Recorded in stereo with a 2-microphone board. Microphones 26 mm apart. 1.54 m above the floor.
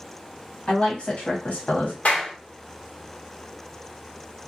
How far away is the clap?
About 1.2 m.